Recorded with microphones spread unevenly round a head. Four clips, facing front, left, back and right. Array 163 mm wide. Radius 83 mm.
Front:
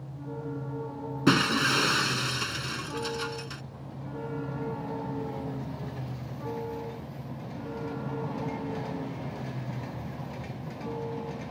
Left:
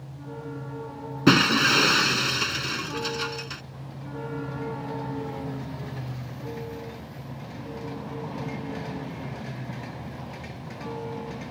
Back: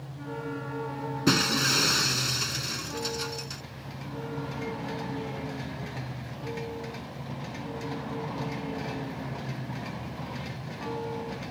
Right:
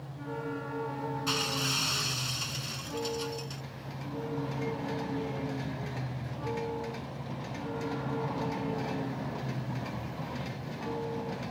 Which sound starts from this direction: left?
Breaking glass, at 1.3 s.